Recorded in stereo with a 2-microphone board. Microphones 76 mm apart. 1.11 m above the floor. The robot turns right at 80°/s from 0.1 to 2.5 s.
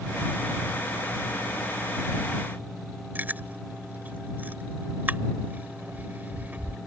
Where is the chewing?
25° right (ahead or behind).